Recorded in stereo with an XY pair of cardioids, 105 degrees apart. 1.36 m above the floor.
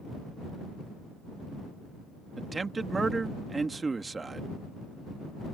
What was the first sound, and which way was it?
A man speaking, 25° right.